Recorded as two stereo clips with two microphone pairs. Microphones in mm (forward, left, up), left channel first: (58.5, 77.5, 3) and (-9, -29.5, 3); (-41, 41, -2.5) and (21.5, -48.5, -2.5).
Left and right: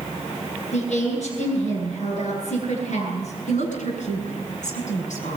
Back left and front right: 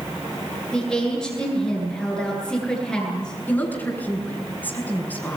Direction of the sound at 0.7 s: 40° left.